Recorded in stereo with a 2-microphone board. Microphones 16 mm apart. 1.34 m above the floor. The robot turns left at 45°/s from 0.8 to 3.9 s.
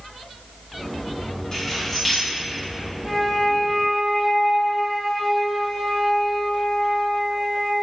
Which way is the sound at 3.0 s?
25° right.